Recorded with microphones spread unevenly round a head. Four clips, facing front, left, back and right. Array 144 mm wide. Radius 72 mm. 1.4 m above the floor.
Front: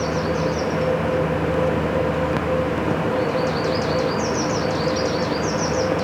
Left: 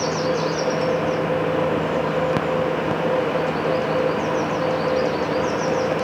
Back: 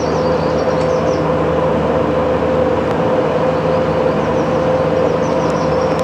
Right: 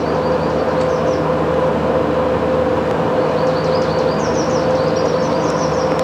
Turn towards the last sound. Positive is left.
No sound to turn to.